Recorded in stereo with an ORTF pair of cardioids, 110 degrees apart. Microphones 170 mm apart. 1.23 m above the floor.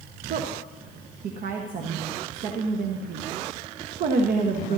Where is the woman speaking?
55° right, 1.3 m.